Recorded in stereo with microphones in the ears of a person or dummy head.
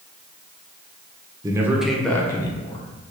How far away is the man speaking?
About 0.7 m.